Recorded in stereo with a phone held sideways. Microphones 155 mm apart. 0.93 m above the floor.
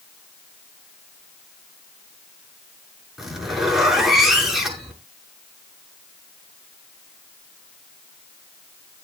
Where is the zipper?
5° right (ahead or behind), 7 m.